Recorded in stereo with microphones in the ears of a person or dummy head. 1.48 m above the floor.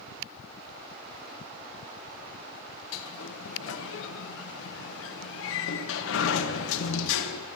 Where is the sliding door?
75° left (ahead or behind), 1.0 m.